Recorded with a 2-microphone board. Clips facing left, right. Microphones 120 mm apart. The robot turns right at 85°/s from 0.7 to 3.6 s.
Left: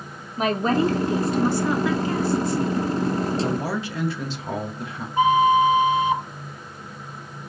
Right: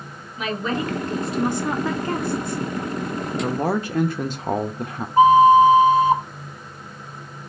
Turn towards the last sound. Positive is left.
turn(degrees=-35)  # may be behind; listen again after turning